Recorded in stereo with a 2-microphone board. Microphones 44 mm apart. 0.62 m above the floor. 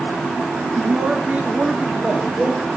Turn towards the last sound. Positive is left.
turn(degrees=-30)  # may be behind; listen again after turning